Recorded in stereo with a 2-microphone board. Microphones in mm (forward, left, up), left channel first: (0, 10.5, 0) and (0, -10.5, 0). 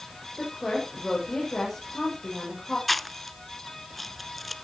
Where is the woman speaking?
15° left (ahead or behind), 7.5 m.